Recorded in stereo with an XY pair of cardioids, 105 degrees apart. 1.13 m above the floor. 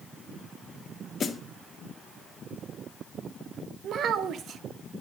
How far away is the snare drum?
About 1.7 m.